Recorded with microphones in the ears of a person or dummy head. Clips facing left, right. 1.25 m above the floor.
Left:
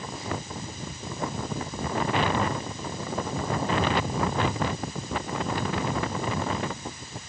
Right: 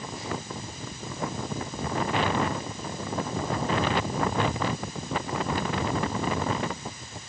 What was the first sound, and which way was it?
Only background noise.